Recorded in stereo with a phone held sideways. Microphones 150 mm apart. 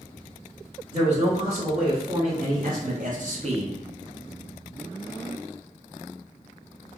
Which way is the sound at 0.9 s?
40° right (ahead or behind).